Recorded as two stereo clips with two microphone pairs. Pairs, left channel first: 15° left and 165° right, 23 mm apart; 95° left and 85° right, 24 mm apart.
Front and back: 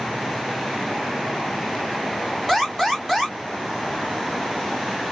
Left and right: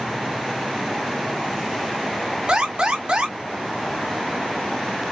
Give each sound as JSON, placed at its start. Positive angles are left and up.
{"t": 2.5, "sound": "an alarm", "azimuth_deg": -70, "distance_m": 1.6}